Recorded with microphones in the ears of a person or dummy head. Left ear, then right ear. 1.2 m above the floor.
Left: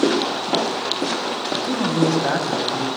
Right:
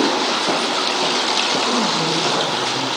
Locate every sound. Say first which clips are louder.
1.6 s a man speaking: right 2 dB; 65° left (ahead or behind), 10 m